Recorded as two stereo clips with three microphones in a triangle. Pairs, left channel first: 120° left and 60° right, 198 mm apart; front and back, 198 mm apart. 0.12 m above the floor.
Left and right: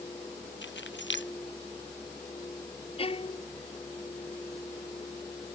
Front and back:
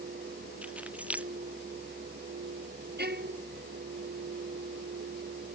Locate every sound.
0.6 s keys jangling: 95° left
3.0 s a violin: 175° left